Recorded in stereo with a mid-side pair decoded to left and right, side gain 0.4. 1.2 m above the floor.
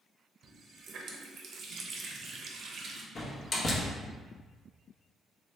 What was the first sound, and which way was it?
A running tap, 70° right.